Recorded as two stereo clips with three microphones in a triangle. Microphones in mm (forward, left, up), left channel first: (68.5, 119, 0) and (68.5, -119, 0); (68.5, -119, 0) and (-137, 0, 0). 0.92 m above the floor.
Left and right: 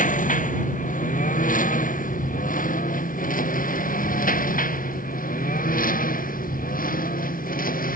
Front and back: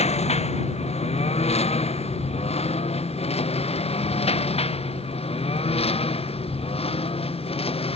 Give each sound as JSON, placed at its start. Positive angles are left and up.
{"t": 0.0, "sound": "a lawn mower", "azimuth_deg": 35}